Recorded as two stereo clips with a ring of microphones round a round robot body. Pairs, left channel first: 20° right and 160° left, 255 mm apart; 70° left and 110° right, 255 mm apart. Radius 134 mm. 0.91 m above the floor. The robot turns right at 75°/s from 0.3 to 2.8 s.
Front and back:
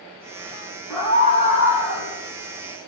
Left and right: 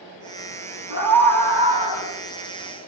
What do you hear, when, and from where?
0.9 s a scream: 110° right, 9 m; by 2.1 s 20° right, 9 m